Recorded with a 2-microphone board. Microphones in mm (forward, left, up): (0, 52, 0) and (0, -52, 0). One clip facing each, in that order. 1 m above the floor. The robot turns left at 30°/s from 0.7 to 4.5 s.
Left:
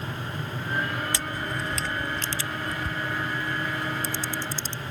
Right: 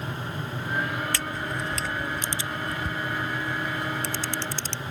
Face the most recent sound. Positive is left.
turn(degrees=-80)